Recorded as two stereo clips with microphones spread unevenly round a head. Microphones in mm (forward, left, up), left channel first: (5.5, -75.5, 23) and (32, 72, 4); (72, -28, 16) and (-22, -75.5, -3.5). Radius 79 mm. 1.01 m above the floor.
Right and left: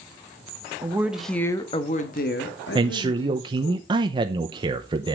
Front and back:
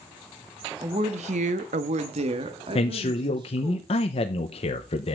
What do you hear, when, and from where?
0.8 s a woman speaking: 150° left, 1.3 m; by 3.8 s 105° right, 2.5 m
2.8 s a man speaking: 45° left, 0.8 m